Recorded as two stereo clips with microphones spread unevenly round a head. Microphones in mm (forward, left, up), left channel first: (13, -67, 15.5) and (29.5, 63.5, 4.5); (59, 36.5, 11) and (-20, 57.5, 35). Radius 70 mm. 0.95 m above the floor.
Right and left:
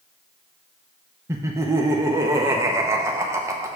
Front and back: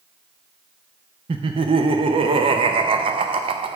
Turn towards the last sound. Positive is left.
turn(degrees=150)